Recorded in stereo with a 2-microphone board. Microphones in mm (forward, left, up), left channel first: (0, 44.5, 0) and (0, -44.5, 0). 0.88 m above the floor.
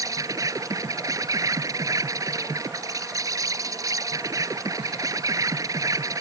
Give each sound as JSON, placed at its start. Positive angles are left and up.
{"t": 0.0, "sound": "an insect", "side_deg": -40}